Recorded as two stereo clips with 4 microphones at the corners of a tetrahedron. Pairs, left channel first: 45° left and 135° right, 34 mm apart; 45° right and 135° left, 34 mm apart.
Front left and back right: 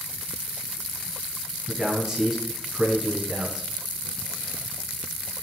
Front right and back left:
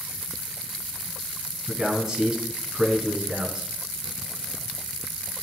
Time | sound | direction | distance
1.7 | a man speaking | straight behind | 1.6 m